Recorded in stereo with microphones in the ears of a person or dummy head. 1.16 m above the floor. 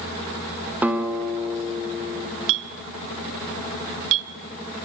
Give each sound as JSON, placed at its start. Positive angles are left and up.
{"t": 0.8, "sound": "a guitar", "side_deg": -10, "distance_m": 2.0}
{"t": 2.5, "sound": "a clink", "side_deg": -65, "distance_m": 1.1}